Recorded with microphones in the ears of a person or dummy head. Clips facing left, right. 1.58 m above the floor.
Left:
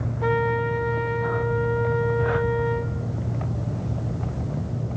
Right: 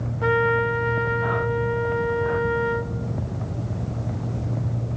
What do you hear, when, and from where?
0.2 s a trumpet: 5° right (ahead or behind), 1.0 m